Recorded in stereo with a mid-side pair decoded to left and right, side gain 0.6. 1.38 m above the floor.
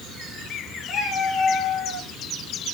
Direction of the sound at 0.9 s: 45° left.